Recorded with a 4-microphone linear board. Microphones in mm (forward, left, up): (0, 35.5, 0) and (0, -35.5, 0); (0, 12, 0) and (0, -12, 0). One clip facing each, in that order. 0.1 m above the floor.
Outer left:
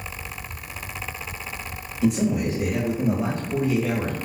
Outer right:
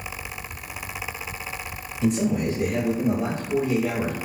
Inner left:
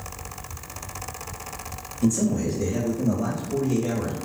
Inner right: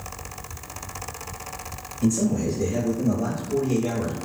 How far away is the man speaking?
About 1.8 m.